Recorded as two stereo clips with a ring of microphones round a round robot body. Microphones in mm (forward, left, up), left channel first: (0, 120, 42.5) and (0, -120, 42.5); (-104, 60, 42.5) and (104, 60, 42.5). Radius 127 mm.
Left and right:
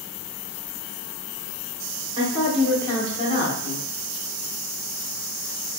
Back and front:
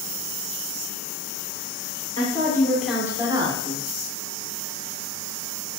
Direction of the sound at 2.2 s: 140° right.